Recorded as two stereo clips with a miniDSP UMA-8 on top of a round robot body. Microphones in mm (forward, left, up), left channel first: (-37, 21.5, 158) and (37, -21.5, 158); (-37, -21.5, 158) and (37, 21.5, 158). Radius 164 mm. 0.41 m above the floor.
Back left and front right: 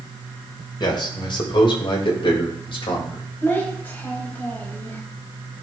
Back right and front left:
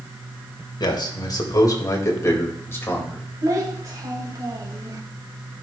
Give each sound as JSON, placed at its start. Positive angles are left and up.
{"t": 0.8, "sound": "a man speaking", "azimuth_deg": 180, "distance_m": 1.9}
{"t": 3.4, "sound": "a child speaking", "azimuth_deg": 80, "distance_m": 1.8}